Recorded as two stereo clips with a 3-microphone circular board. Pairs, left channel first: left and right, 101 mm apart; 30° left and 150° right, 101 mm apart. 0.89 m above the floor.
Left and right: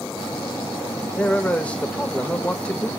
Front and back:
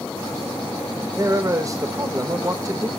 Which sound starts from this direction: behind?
A man speaking, at 1.1 s.